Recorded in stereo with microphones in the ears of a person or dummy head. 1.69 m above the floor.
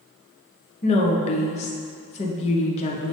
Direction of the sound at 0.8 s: 30° left (ahead or behind).